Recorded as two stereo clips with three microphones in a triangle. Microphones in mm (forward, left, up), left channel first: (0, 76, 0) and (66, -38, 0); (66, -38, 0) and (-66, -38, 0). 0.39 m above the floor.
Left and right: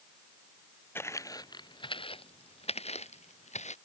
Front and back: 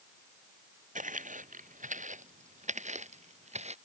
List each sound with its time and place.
0.9 s footsteps: 170° right; by 3.8 s 150° left